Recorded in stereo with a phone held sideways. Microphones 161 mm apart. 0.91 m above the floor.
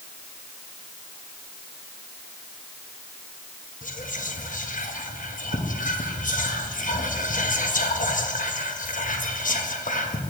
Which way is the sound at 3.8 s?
55° left (ahead or behind).